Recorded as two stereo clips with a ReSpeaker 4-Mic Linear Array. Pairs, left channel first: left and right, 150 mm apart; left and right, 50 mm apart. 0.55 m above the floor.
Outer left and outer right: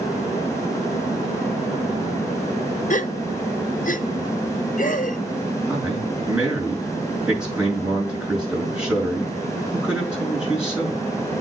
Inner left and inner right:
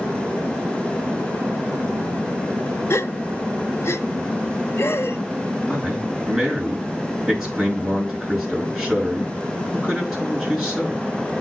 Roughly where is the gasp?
Left.